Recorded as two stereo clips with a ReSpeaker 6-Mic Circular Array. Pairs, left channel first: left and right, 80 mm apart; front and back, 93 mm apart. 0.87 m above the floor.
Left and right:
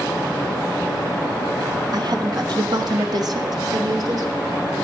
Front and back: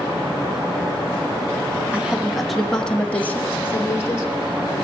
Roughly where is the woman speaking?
Right.